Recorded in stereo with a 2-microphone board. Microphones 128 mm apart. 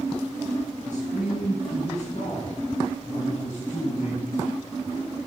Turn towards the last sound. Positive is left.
turn(degrees=80)